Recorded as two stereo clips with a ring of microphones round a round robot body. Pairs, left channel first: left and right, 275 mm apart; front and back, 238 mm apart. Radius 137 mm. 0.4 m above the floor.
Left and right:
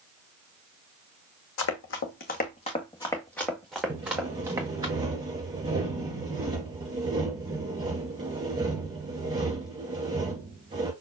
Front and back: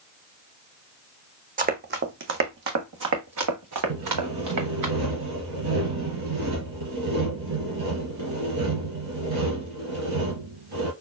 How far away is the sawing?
About 2 m.